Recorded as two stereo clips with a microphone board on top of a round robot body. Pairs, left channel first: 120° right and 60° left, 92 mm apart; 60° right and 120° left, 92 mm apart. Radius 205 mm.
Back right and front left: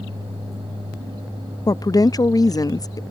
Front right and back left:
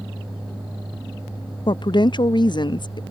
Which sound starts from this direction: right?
A woman speaking, at 1.7 s.